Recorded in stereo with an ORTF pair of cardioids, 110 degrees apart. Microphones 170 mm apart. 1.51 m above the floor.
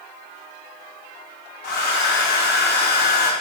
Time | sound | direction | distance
1.6 | a hair dryer | 65° left | 1.0 m